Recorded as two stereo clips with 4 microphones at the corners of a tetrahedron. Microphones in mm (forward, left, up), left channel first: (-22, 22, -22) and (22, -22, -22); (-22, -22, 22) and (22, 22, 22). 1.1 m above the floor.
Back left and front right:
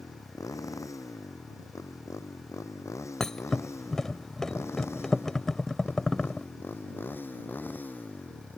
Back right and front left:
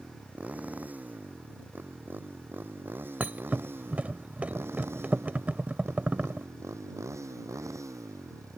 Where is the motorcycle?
110° left; by 8.6 s 75° left.